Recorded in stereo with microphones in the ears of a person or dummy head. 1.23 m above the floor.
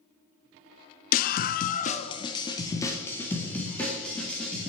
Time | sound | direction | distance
1.1 | a scream | 45° left (ahead or behind) | 0.6 m